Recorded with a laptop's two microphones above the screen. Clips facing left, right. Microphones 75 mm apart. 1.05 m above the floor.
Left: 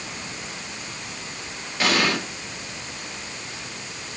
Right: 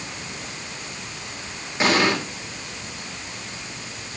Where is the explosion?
25° right (ahead or behind), 2.5 m.